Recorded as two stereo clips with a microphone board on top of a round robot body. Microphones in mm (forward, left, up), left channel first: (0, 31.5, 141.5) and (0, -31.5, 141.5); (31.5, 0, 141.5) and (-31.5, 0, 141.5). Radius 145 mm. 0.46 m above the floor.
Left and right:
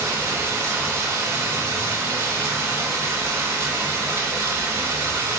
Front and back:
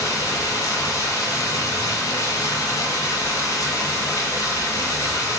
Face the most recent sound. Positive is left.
turn(degrees=-40)